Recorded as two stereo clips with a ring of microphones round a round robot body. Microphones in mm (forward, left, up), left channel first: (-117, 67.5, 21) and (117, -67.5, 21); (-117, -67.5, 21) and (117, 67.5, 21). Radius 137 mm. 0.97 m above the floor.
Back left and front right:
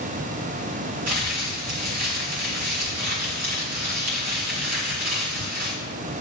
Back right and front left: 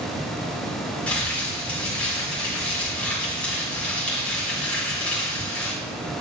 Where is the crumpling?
65° right, 2.5 m.